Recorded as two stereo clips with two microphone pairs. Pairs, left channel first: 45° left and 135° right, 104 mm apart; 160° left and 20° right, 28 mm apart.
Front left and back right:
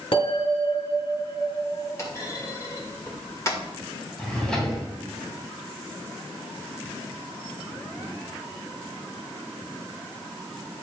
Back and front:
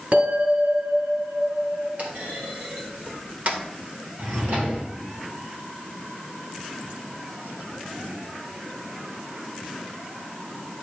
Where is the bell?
20° left, 4.5 m.